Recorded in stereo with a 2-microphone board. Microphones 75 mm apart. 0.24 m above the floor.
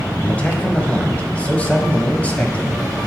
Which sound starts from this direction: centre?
A man speaking, at 0.2 s.